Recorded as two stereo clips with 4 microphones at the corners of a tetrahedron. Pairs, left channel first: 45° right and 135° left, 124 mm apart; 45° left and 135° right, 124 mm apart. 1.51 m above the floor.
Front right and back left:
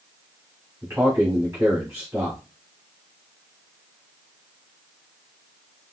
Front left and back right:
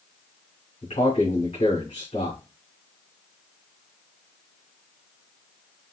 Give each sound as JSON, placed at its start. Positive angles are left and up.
{"t": 0.8, "sound": "a man speaking", "azimuth_deg": 60, "distance_m": 2.0}